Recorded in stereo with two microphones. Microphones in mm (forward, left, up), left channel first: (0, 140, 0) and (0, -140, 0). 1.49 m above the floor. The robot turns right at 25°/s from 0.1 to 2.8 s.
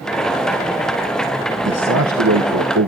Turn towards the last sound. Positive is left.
turn(degrees=-80)